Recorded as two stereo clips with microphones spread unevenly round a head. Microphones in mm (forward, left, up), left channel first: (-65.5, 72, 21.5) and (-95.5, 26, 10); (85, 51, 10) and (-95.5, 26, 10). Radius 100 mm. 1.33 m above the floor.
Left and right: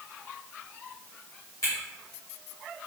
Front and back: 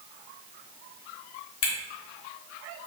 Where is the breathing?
No breathing in this recording.